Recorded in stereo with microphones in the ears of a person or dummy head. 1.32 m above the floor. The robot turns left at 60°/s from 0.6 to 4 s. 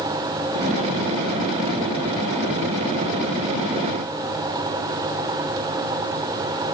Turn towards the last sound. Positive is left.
No sound to turn to.